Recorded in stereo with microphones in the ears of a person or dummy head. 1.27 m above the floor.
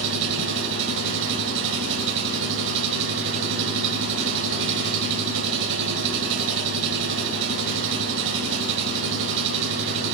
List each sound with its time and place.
0.0 s an engine running: 70° right (ahead or behind), 6.5 m